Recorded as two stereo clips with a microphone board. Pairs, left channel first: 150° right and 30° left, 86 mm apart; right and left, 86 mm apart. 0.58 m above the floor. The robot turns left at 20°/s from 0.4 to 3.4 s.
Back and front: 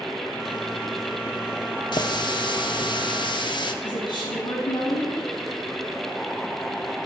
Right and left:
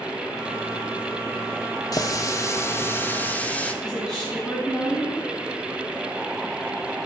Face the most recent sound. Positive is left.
turn(degrees=180)